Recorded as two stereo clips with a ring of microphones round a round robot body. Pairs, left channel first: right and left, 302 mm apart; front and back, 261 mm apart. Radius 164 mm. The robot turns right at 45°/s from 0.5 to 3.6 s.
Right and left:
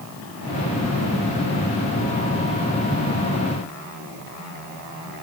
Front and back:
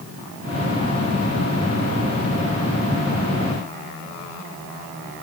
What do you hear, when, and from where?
Only background noise.